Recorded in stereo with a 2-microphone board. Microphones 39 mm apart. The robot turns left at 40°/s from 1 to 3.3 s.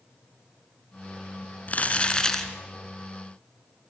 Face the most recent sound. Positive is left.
turn(degrees=-25)